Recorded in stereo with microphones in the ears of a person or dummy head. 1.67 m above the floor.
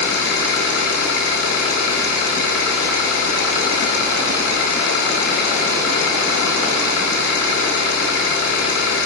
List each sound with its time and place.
0.0 s an engine running: 65° left (ahead or behind), 4 m